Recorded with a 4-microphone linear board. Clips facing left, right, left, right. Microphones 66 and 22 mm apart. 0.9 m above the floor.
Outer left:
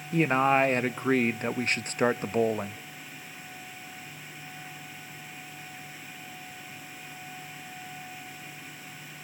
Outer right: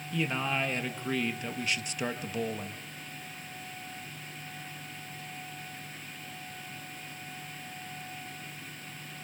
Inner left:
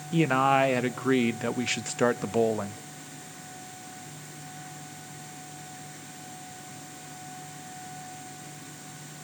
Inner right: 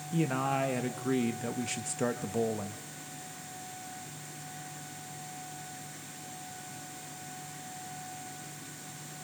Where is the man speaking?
45° left (ahead or behind), 0.6 m.